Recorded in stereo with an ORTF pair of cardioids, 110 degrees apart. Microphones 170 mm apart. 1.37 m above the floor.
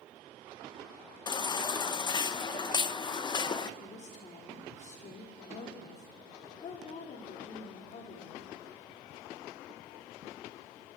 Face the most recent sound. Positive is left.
turn(degrees=45)